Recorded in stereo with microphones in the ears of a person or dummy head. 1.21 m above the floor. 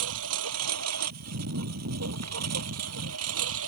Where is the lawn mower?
75° right (ahead or behind).